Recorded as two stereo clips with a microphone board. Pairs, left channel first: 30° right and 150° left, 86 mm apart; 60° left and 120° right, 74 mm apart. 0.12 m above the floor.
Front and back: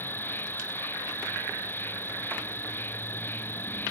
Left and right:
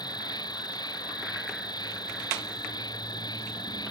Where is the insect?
35° left.